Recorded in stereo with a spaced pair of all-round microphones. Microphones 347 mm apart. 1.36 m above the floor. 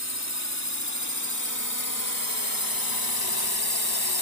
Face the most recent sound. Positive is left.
turn(degrees=80)